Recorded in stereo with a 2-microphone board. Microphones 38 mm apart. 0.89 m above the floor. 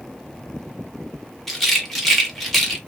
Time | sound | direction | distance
1.5 | a rattle | 5° left (ahead or behind) | 1.3 m